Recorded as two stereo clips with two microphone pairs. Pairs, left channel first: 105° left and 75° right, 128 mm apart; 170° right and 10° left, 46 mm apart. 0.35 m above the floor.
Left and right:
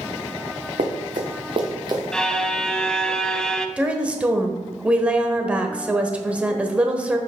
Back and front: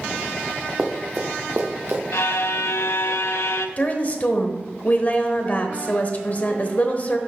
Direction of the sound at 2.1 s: 170° right.